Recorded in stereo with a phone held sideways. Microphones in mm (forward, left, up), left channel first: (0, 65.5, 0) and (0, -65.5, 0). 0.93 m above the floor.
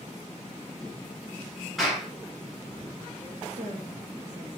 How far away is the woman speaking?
About 1.1 m.